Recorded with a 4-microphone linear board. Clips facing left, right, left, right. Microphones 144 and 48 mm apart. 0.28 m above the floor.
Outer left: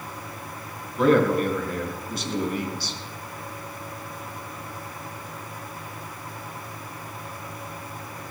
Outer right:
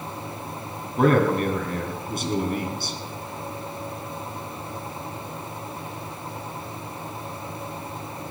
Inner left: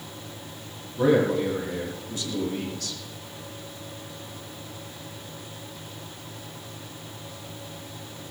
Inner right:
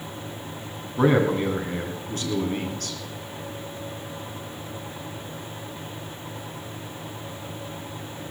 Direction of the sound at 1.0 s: 50° right (ahead or behind).